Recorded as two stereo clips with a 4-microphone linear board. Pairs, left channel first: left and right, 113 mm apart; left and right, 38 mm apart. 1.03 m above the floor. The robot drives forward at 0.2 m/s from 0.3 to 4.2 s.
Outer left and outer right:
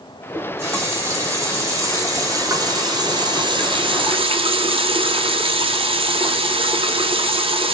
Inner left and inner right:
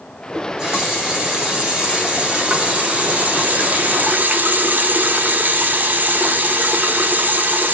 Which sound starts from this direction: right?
A running tap, at 0.3 s.